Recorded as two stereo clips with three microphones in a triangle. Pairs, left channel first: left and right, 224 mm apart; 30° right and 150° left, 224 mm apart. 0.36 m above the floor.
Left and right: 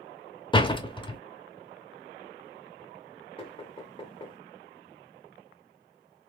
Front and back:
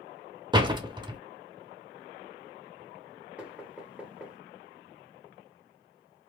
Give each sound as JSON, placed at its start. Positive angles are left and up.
{"t": 0.5, "sound": "a door slam", "azimuth_deg": 120, "distance_m": 0.7}
{"t": 3.4, "sound": "knocking", "azimuth_deg": 75, "distance_m": 1.2}